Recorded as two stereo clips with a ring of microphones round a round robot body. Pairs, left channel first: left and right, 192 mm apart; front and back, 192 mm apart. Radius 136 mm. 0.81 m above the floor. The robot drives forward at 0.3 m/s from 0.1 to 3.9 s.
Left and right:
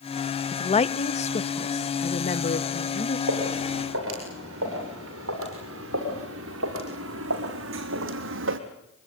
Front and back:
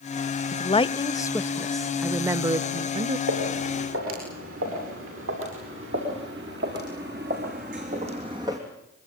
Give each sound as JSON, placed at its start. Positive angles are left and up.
{"t": 0.5, "sound": "a woman speaking", "azimuth_deg": 40, "distance_m": 0.7}
{"t": 3.3, "sound": "footsteps", "azimuth_deg": -135, "distance_m": 9.5}